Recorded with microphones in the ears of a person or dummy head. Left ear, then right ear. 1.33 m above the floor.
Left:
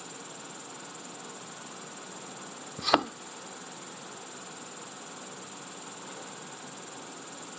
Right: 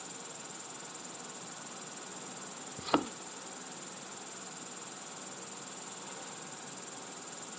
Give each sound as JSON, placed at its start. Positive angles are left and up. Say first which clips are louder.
{"t": 0.0, "sound": "an insect", "louder": "left 3 dB", "side_deg": 10}
{"t": 2.8, "sound": "a thud", "louder": "left 6 dB", "side_deg": 35}